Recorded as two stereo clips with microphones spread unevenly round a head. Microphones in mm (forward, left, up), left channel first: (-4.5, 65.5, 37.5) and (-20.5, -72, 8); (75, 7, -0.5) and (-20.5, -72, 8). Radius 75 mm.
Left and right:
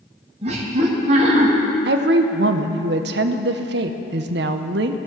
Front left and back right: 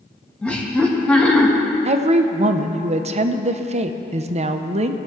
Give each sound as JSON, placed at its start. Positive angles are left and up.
{"t": 0.4, "sound": "laughter", "azimuth_deg": -45, "distance_m": 1.7}
{"t": 1.9, "sound": "a woman speaking", "azimuth_deg": -115, "distance_m": 0.7}